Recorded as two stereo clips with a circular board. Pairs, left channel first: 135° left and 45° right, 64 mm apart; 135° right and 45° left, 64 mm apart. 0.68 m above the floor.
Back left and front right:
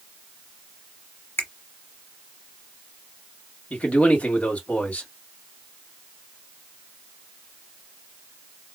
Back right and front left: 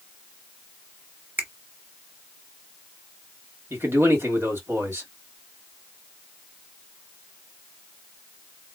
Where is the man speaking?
70° left, 1.5 m.